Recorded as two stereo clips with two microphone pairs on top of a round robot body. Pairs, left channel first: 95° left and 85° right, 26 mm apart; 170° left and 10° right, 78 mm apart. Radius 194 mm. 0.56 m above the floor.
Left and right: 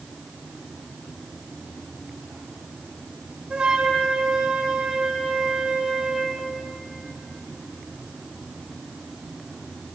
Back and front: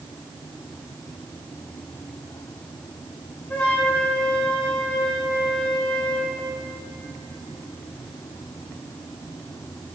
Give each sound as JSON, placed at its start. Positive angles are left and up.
{"t": 3.5, "sound": "a flute", "azimuth_deg": -120, "distance_m": 4.0}